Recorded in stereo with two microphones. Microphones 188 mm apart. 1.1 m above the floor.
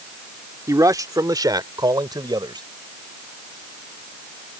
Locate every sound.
0.7 s a man speaking: 15° right (ahead or behind); by 2.6 s 20° right (ahead or behind)